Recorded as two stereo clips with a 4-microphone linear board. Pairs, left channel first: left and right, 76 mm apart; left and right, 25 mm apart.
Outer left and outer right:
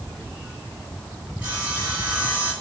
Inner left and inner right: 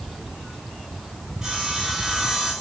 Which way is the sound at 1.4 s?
20° right (ahead or behind).